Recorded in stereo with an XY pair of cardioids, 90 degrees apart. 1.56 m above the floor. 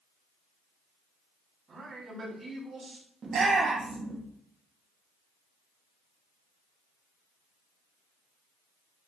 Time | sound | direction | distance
1.7 | a man speaking | 50° right | 5 m
3.2 | a shout | 50° right | 2.5 m